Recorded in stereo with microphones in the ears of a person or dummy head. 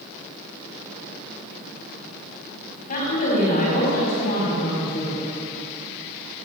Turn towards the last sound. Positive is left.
turn(degrees=50)  # may be behind; listen again after turning